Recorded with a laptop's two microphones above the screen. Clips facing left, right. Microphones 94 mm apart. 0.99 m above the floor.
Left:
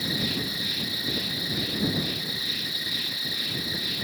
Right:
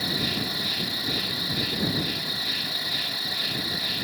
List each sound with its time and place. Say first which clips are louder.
0.0 s an insect: right 1 dB; 85° right